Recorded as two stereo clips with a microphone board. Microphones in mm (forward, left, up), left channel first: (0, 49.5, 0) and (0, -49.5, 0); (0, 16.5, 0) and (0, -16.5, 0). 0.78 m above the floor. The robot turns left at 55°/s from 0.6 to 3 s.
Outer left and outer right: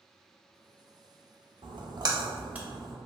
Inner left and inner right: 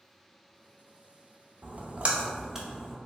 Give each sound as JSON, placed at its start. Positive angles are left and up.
{"t": 1.6, "sound": "a splash", "side_deg": -60, "distance_m": 0.6}